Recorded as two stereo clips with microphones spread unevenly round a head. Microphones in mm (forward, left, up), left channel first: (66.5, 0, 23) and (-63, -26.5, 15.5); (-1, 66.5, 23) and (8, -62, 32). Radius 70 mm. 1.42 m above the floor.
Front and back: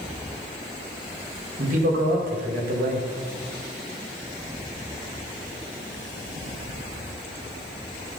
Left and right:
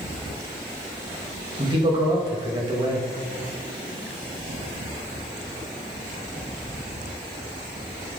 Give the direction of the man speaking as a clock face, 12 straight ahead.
5 o'clock.